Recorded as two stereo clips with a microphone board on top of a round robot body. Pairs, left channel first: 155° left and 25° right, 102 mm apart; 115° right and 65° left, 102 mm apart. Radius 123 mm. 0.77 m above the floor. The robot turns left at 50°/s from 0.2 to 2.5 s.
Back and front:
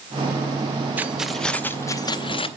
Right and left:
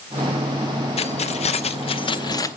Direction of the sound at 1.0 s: 95° right.